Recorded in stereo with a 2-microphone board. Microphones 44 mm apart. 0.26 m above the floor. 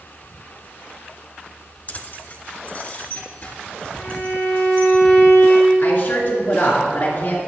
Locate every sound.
1.9 s keys jangling: 35° left (ahead or behind), 0.8 m; by 4.9 s 25° left (ahead or behind), 5 m
3.9 s a violin: 55° left (ahead or behind), 4.5 m
5.8 s a woman speaking: 35° left (ahead or behind), 3 m